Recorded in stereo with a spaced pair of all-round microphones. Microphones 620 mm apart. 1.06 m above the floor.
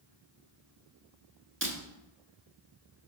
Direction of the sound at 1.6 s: 20° right (ahead or behind).